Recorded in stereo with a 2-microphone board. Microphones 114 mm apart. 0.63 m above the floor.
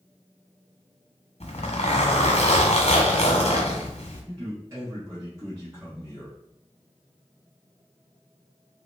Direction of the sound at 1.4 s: 80° left.